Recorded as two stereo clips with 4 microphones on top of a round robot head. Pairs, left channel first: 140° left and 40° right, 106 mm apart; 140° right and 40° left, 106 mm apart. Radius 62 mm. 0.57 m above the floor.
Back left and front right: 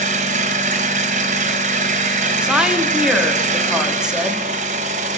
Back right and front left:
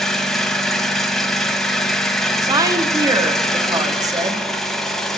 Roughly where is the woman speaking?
Ahead left.